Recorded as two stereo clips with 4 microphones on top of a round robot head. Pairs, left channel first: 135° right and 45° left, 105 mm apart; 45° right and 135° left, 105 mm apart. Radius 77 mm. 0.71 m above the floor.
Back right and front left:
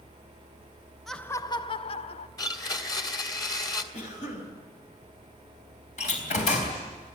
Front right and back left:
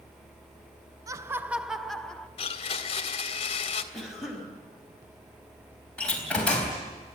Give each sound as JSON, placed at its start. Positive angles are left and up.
{"t": 1.1, "sound": "laughter", "azimuth_deg": 135, "distance_m": 0.6}
{"t": 2.4, "sound": "a blender", "azimuth_deg": -80, "distance_m": 1.7}
{"t": 3.9, "sound": "a cough", "azimuth_deg": -135, "distance_m": 5.5}
{"t": 6.0, "sound": "a door slam", "azimuth_deg": -125, "distance_m": 4.0}